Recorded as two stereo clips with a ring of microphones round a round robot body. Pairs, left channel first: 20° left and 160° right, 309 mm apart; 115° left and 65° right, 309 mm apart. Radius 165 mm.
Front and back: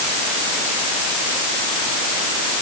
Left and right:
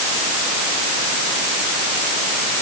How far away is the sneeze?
I don't hear a sneeze.